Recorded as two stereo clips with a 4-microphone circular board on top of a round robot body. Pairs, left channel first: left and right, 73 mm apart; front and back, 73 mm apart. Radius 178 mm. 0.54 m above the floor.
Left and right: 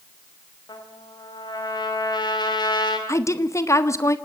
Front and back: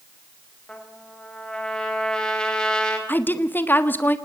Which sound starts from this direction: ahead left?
A woman speaking, at 3.1 s.